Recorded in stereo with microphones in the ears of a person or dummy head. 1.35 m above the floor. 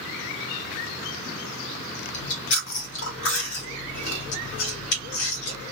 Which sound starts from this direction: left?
Chewing, at 2.1 s.